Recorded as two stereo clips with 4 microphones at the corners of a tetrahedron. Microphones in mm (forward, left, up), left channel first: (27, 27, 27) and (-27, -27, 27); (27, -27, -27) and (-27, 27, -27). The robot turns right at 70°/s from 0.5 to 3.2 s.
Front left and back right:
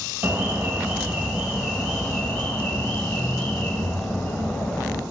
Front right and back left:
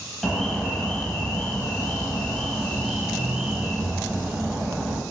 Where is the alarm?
125° right, 0.6 m; by 5.0 s 65° left, 0.6 m.